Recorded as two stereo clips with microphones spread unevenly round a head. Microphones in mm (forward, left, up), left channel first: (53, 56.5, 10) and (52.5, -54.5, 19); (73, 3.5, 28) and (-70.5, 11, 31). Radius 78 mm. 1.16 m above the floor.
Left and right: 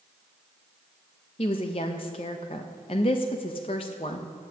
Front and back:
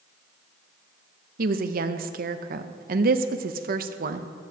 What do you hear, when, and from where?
1.4 s a woman speaking: 150° left, 0.7 m